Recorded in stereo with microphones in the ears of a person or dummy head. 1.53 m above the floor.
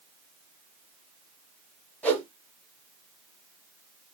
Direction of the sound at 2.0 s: 10° left (ahead or behind).